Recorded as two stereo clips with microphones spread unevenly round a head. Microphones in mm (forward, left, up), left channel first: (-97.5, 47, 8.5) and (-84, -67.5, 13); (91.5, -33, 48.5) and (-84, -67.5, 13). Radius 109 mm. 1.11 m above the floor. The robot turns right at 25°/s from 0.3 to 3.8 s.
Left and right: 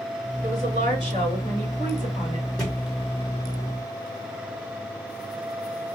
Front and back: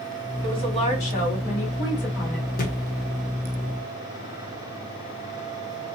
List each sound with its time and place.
0.4 s a woman speaking: 55° right, 3 m; by 2.5 s straight ahead, 3 m
2.6 s a thud: 10° left, 1.0 m; by 2.8 s 15° left, 1.0 m